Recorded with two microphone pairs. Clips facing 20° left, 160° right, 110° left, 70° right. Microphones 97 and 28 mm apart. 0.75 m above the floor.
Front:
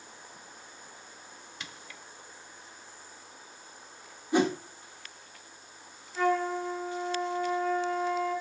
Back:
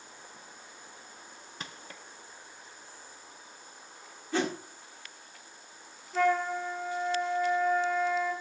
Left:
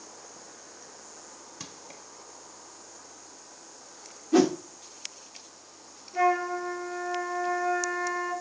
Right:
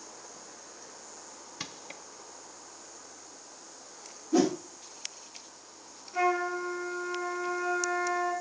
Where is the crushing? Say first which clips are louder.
Back 3 dB, right 4 dB; 120° right, 0.7 m.